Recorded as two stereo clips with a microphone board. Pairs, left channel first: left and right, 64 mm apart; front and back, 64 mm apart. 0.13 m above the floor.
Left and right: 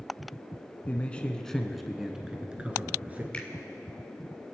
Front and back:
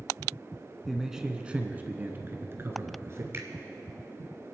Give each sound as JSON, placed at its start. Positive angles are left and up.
{"t": 0.9, "sound": "a man speaking", "azimuth_deg": 95, "distance_m": 1.1}
{"t": 3.3, "sound": "a finger snap", "azimuth_deg": 155, "distance_m": 1.8}